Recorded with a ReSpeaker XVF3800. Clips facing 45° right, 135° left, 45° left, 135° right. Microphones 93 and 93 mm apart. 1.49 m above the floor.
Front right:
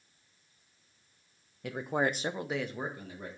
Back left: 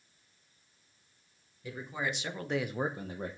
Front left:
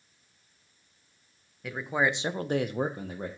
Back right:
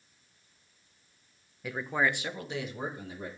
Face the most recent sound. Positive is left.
turn(degrees=90)